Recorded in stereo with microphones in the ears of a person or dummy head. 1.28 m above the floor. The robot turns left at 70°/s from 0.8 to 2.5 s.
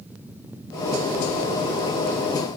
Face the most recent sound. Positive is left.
No sound to turn to.